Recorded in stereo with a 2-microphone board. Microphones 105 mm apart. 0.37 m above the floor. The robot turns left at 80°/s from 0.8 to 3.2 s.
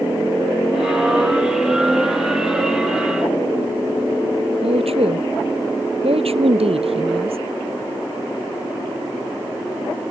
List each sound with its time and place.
4.6 s a woman speaking: 70° right (ahead or behind)